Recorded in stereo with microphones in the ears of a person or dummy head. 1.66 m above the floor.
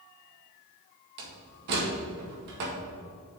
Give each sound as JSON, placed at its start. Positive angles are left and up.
{"t": 1.2, "sound": "a door slam", "side_deg": -60, "distance_m": 2.0}